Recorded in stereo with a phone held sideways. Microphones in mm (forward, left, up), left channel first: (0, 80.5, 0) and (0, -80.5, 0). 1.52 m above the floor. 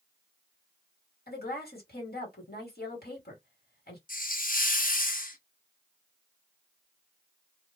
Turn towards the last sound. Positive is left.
turn(degrees=60)  # may be behind; listen again after turning